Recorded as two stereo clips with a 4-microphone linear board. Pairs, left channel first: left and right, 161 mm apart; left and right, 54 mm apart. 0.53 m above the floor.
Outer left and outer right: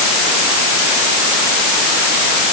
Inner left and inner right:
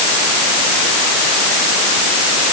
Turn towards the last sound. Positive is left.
No sound to turn to.